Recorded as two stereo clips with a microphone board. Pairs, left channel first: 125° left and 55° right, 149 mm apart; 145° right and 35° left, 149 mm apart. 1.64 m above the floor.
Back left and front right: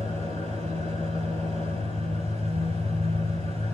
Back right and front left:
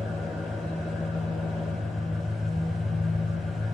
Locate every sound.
0.0 s an engine running: 85° left, 2.5 m